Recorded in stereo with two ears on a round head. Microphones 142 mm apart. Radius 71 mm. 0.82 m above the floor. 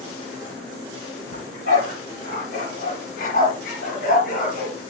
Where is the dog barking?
60° left (ahead or behind), 6.5 m; by 4.8 s 55° left (ahead or behind), 4.5 m.